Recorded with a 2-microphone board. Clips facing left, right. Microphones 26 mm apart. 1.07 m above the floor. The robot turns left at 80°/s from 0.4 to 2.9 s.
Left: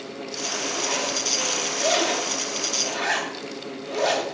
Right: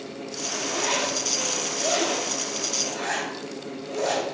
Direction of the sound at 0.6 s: 65° right (ahead or behind).